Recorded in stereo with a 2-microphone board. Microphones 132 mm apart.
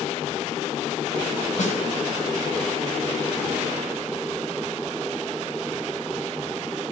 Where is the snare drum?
70° left (ahead or behind), 5 m.